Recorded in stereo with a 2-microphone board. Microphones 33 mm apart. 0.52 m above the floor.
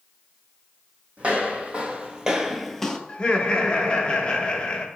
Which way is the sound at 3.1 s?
35° left (ahead or behind).